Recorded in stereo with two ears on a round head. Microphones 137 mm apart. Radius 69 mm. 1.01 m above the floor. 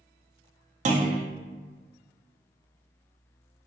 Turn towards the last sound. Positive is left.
turn(degrees=-50)  # may be behind; listen again after turning